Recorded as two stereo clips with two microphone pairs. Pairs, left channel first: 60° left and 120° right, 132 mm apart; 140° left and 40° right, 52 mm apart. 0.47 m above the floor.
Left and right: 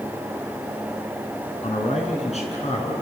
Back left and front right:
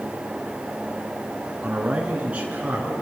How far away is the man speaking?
About 5 m.